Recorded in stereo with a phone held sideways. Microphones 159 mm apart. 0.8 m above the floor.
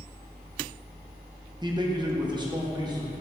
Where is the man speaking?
25° right (ahead or behind), 0.8 m.